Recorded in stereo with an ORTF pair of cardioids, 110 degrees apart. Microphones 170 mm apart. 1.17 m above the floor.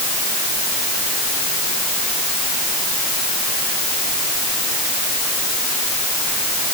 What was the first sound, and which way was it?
Only background noise.